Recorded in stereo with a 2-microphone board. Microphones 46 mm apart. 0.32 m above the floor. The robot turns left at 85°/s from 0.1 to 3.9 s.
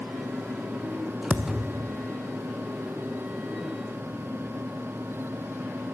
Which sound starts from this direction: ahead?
A thud, at 1.3 s.